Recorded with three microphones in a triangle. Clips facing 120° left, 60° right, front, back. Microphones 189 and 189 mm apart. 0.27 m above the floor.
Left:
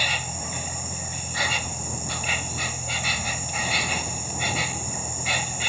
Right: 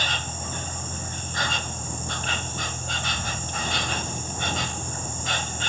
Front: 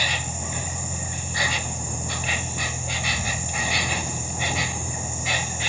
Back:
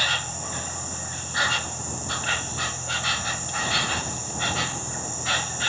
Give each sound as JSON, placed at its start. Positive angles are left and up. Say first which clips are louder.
{"t": 0.0, "sound": "an insect", "louder": "even, front 2 dB", "azimuth_deg": 55}